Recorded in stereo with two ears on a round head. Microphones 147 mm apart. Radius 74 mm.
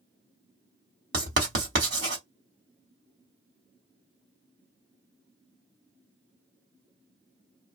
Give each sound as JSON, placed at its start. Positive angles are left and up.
{"t": 1.1, "sound": "writing", "side_deg": -60, "distance_m": 1.8}